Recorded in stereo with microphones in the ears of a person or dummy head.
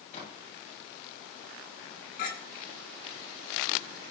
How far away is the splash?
About 8 m.